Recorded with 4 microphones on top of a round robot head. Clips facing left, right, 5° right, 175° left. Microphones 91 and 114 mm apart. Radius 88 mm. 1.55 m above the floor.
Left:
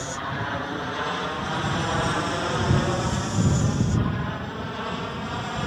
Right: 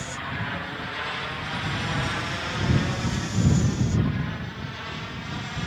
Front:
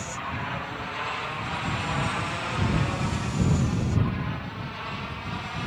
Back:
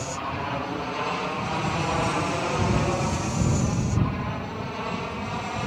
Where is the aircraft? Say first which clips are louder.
Left 3 dB, back 3 dB; 140° left; by 5.7 s 135° left.